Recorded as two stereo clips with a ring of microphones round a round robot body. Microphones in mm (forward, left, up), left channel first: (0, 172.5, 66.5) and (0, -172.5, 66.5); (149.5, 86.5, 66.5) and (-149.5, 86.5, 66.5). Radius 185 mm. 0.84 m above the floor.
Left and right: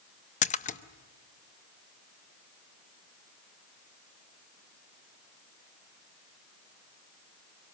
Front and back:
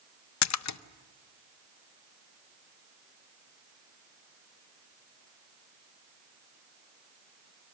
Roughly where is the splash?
Ahead.